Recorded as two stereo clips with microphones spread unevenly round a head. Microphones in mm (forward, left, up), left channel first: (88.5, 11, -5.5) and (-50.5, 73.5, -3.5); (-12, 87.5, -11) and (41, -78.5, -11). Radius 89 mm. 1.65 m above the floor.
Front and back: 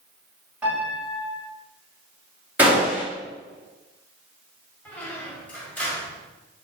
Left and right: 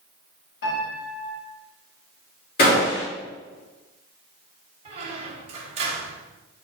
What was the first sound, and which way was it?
A piano, 75° left.